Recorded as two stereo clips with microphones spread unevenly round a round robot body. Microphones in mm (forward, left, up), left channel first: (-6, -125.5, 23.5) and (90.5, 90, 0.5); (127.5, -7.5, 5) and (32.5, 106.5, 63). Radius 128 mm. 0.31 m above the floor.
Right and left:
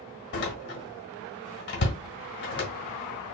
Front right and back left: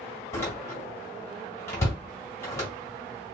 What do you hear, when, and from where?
0.3 s a door slam: 85° right, 1.3 m